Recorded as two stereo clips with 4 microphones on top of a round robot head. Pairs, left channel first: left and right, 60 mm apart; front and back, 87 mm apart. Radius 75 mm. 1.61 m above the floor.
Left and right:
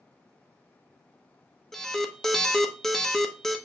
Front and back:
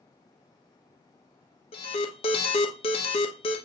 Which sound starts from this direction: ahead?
An alarm, at 1.7 s.